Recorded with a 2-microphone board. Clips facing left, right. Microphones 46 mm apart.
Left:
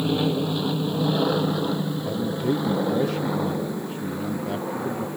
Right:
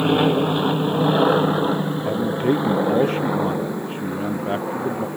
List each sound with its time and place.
0.0 s an aircraft: 50° right (ahead or behind); by 5.2 s 15° right (ahead or behind)
2.0 s a man speaking: 40° right (ahead or behind)